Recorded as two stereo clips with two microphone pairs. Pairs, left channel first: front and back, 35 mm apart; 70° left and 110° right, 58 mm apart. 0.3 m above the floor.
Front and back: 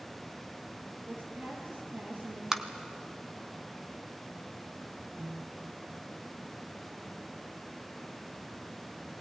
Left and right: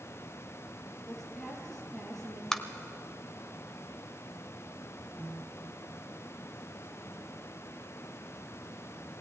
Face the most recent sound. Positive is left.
turn(degrees=-170)